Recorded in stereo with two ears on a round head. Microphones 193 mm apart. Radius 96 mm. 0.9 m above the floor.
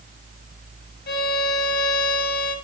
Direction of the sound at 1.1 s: 55° left (ahead or behind).